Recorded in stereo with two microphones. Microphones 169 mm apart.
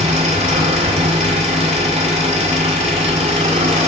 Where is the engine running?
40° right (ahead or behind), 1.6 m.